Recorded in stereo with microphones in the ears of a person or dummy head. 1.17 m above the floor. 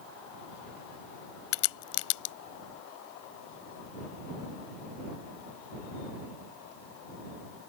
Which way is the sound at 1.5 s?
75° left (ahead or behind).